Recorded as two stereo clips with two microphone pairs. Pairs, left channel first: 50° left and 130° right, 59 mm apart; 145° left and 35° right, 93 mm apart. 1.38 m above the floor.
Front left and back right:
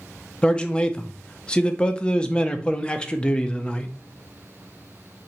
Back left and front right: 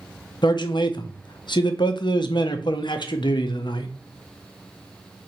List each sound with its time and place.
0.4 s a man speaking: 120° left, 0.5 m